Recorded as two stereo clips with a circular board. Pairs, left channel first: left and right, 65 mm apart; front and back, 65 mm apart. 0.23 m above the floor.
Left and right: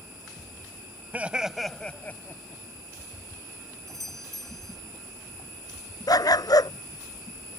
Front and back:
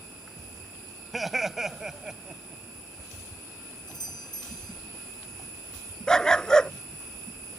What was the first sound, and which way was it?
Laughter, 95° right.